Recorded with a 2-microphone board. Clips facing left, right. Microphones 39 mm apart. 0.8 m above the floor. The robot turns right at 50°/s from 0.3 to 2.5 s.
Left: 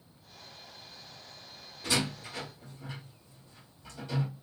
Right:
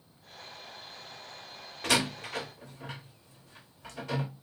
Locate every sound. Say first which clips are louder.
1.8 s a door slam: right 3 dB; 65° right (ahead or behind), 1.2 m; by 4.3 s 70° right (ahead or behind), 1.2 m